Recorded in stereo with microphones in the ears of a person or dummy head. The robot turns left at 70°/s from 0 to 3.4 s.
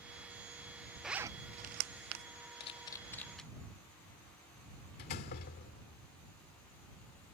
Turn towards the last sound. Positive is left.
turn(degrees=55)  # may be behind; listen again after turning